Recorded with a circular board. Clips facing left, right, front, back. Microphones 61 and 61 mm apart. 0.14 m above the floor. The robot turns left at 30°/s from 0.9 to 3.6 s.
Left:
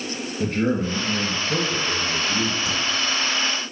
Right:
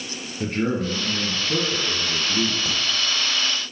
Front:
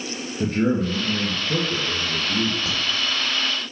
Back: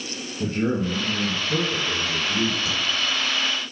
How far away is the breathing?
No breathing in this recording.